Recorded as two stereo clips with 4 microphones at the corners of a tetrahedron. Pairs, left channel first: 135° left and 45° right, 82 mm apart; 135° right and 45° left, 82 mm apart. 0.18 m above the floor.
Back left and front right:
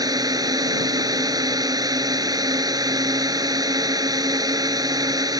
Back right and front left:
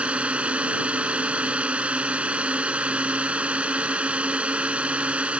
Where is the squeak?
I don't hear a squeak.